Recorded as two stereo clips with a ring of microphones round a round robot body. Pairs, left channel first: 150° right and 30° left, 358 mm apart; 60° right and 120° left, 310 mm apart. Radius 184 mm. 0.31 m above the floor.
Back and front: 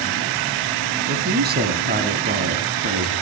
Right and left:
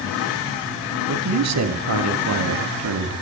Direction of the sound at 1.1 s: 90° left.